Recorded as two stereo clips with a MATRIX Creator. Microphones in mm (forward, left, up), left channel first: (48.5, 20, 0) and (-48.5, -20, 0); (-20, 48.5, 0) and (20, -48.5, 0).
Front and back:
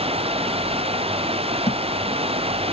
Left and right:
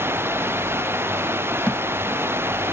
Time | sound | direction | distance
0.0 | running water | 135° right | ?
1.7 | a thud | 35° left | ?